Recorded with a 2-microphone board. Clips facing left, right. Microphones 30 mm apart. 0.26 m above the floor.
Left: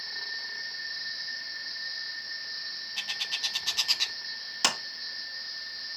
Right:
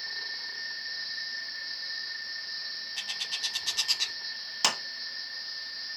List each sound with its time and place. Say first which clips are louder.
3.0 s a bird: left 2 dB; 10° left (ahead or behind), 0.7 m
4.6 s a clap: even; centre (ahead or behind), 2 m